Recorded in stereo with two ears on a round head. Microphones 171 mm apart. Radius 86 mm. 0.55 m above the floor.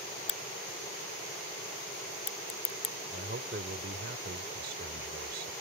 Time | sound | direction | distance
0.3 | a crack | 35° left (ahead or behind) | ?
3.1 | a man speaking | 50° right (ahead or behind) | ?